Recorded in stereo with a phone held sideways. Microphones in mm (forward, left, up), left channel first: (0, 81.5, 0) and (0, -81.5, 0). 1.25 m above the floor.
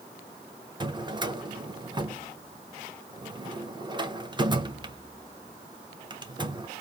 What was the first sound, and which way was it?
A drawer, 30° right (ahead or behind).